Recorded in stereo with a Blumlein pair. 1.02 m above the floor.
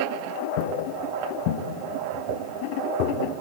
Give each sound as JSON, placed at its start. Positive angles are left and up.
{"t": 0.6, "sound": "footsteps", "azimuth_deg": 50, "distance_m": 4.5}